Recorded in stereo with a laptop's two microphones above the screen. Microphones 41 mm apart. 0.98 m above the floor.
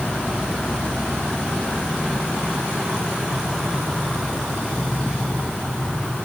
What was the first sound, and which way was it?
Only background noise.